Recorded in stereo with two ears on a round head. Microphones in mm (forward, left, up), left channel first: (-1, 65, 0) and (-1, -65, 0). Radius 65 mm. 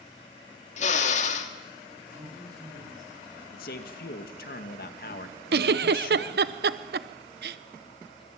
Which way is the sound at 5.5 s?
80° right.